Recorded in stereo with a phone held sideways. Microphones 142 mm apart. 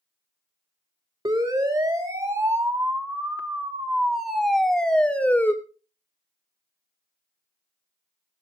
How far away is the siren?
About 4 m.